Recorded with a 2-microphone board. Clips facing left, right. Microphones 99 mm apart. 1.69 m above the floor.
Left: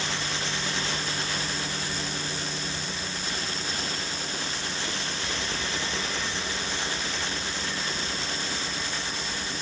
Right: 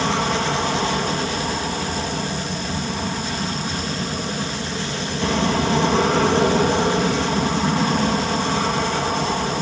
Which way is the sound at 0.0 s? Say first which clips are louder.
Right 12 dB; 65° right (ahead or behind).